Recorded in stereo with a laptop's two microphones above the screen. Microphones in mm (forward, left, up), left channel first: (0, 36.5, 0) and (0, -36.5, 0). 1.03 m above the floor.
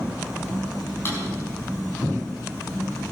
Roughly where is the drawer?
Left.